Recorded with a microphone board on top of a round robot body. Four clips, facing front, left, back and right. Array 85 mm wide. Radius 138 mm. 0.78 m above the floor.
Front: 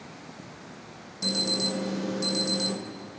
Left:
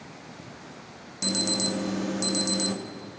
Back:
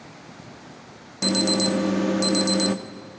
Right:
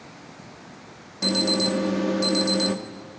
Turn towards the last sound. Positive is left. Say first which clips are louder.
# right 6 dB, back 9 dB
turn(degrees=-165)